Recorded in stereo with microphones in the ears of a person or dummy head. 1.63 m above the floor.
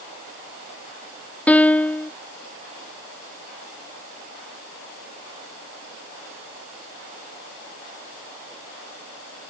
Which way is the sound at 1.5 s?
5° left (ahead or behind).